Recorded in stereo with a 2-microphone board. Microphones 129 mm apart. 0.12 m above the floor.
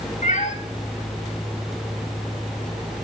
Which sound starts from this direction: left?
A cat meowing, at 0.2 s.